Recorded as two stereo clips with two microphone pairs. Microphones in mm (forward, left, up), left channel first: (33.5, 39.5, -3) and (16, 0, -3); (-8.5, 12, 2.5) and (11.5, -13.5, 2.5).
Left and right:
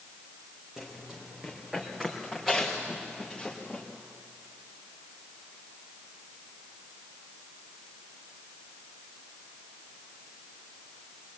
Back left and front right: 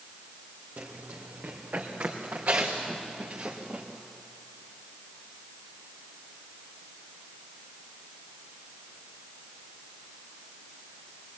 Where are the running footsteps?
35° right, 4 m; by 3.8 s 15° right, 4.5 m.